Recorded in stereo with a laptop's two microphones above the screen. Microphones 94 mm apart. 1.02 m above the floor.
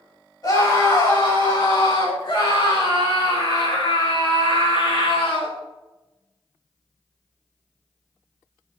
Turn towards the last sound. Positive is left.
turn(degrees=80)